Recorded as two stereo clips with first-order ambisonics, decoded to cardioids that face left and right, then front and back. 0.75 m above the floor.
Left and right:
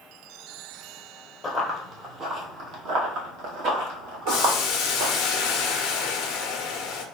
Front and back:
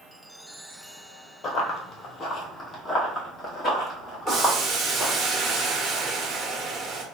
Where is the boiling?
120° left, 0.8 m.